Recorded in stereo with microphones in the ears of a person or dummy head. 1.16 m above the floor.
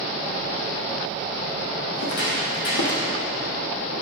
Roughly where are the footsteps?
Left.